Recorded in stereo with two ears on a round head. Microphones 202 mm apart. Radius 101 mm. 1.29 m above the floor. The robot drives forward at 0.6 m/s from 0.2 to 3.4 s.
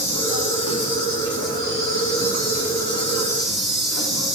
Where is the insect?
75° left (ahead or behind), 4 m.